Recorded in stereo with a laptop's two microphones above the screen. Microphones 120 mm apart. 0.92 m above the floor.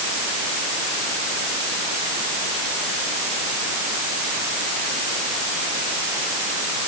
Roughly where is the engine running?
No engine running in this recording.